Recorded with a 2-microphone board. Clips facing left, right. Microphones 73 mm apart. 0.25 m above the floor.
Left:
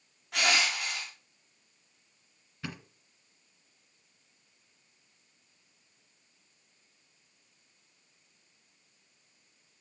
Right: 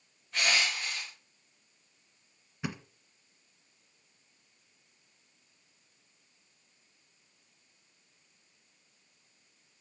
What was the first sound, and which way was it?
Crushing, 85° left.